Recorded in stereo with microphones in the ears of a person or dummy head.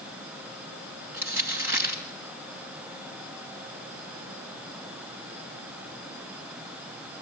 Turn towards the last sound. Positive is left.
turn(degrees=-10)  # may be behind; listen again after turning